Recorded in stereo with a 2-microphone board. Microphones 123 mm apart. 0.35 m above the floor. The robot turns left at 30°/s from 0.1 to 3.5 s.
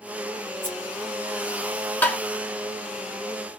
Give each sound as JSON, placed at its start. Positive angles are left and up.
{"t": 0.6, "sound": "scissors", "side_deg": -40, "distance_m": 2.0}
{"t": 2.0, "sound": "tapping", "side_deg": 15, "distance_m": 1.1}